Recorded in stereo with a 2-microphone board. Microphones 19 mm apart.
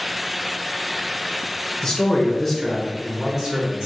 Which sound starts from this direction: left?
A man speaking, at 1.8 s.